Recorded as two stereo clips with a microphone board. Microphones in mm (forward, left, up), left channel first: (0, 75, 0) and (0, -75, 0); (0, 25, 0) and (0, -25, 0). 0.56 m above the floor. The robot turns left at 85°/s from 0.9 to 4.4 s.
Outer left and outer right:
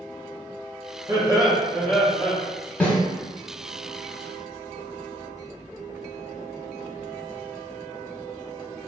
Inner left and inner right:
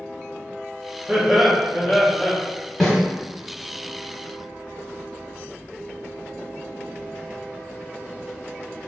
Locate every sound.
1.1 s laughter: 115° right, 0.8 m; by 2.4 s 135° left, 0.8 m
2.8 s a snare drum: 10° left (ahead or behind), 0.9 m; by 3.0 s 5° right (ahead or behind), 0.9 m